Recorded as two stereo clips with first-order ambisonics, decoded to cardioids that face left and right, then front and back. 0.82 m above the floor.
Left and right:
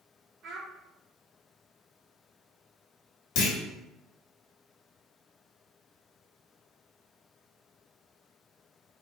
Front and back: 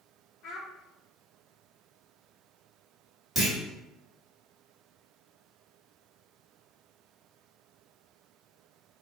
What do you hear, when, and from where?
0.4 s a child speaking: 35° right, 1.2 m
3.4 s a clunk: 80° left, 1.8 m